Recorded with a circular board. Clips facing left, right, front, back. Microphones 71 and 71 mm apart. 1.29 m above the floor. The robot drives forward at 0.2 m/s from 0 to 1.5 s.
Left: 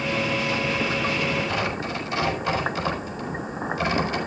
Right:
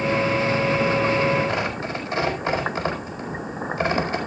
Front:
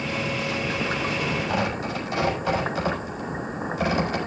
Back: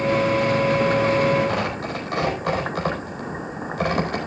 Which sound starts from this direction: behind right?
Tearing paper, at 1.5 s.